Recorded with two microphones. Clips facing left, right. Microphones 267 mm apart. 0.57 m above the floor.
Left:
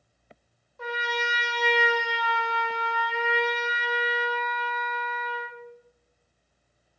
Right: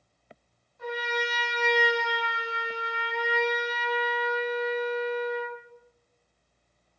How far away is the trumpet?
About 1.0 m.